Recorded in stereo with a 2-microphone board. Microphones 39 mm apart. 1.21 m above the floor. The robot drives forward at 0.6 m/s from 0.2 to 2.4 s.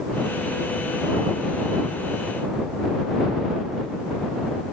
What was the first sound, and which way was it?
Only background noise.